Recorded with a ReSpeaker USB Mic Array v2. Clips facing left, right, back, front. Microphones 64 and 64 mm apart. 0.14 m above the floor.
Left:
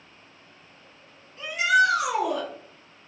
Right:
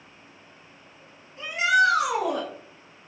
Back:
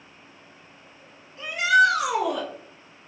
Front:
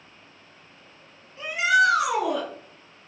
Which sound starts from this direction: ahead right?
A shout, at 1.4 s.